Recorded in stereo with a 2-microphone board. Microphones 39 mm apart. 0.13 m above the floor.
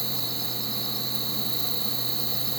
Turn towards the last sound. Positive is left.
turn(degrees=5)  # may be behind; listen again after turning